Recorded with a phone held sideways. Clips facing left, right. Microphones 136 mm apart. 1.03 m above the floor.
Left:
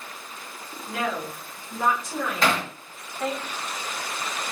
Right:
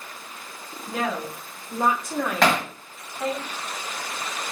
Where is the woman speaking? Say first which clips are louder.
Right 1 dB; 55° right (ahead or behind), 3 m; by 3.4 s 5° left (ahead or behind), 1.4 m.